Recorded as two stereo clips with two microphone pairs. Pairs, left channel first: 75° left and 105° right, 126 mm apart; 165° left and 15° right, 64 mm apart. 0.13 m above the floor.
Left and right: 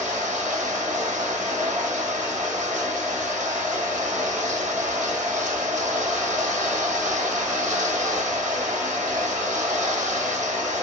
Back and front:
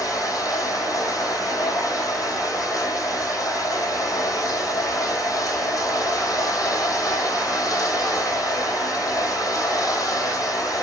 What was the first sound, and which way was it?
Running water, straight behind.